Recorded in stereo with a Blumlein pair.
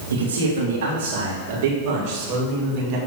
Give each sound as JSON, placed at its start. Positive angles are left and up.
{"t": 0.1, "sound": "a man speaking", "azimuth_deg": -65, "distance_m": 1.8}